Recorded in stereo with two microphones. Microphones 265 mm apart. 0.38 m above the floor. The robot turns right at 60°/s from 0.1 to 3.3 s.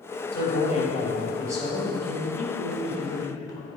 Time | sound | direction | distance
0.3 | a man speaking | 125° left | 2.5 m